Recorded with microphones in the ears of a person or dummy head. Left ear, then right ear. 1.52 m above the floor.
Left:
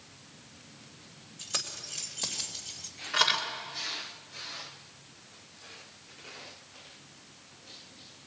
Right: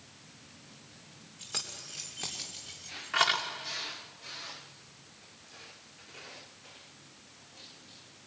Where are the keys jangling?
10° left (ahead or behind), 3 m; by 3.4 s 30° right (ahead or behind), 2.5 m.